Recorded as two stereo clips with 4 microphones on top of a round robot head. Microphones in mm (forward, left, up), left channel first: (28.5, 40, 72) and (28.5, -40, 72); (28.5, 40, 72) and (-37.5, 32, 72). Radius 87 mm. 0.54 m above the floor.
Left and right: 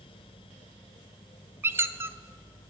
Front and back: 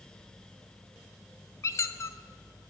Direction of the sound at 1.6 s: 35° right.